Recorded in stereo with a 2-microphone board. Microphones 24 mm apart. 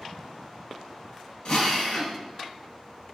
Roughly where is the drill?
Left.